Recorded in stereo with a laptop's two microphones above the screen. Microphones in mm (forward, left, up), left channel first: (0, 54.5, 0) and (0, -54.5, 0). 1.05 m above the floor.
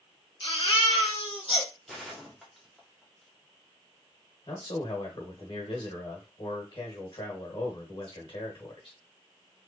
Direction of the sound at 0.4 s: 50° left (ahead or behind).